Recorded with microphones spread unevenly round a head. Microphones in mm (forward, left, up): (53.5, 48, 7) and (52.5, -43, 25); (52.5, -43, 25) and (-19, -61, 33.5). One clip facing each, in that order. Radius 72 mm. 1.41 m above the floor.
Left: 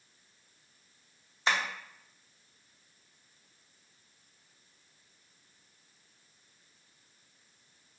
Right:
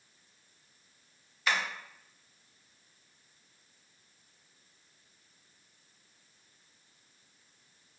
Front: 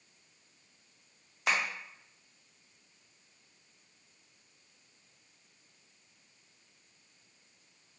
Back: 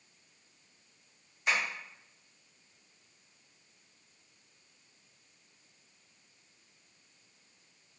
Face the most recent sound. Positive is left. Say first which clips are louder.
# left 1 dB, even
turn(degrees=25)